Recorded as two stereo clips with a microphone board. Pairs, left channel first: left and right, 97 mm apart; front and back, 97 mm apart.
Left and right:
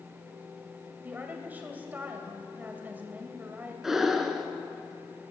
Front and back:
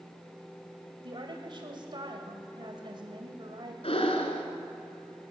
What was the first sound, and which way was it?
A woman speaking, 160° right.